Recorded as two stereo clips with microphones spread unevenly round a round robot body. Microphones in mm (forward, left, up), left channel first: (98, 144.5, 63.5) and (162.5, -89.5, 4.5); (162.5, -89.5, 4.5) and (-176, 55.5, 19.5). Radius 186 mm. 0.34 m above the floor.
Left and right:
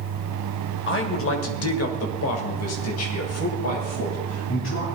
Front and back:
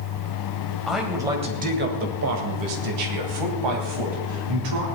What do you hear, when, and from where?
0.9 s a man speaking: 65° left, 2.5 m; by 4.8 s 165° left, 4 m